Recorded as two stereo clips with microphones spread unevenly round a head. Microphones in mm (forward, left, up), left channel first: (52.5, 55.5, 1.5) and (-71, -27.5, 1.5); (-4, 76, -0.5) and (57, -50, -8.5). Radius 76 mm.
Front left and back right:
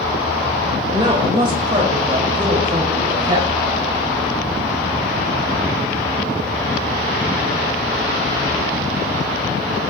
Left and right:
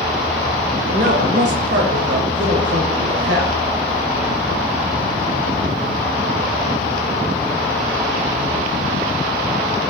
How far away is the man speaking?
About 2 m.